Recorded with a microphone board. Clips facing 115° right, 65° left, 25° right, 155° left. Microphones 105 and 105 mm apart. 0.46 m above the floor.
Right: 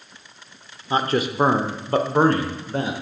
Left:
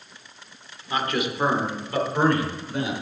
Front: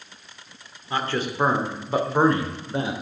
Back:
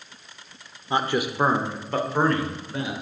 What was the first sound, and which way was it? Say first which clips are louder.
A man speaking: right 4 dB, back 2 dB; 150° right.